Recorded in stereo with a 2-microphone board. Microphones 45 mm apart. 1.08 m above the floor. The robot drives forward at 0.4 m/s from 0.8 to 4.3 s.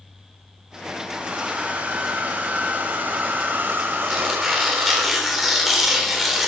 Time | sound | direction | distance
1.1 | a hair dryer | 35° right (ahead or behind) | 2.5 m
4.1 | tearing paper | centre (ahead or behind) | 3 m